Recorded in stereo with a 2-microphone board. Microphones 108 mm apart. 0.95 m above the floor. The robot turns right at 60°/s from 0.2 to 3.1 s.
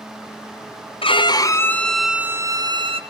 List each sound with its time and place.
1.0 s a violin: 120° left, 0.5 m; by 3.0 s 120° right, 0.5 m